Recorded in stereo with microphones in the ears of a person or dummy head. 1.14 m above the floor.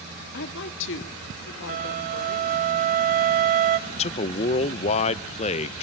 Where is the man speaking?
40° left (ahead or behind), 0.8 m.